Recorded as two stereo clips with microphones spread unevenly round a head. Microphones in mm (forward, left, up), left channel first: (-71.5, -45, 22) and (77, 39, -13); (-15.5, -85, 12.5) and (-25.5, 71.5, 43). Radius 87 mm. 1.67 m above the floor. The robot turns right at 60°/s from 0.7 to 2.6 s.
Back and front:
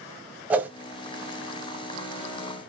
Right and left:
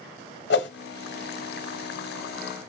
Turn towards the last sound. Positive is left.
turn(degrees=55)